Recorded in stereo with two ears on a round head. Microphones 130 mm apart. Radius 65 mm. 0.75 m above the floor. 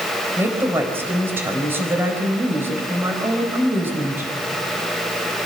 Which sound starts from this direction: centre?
A woman speaking, at 0.4 s.